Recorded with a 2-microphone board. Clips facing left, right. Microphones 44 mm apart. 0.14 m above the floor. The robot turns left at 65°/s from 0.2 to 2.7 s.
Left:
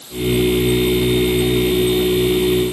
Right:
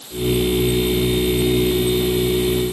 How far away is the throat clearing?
No throat clearing in this recording.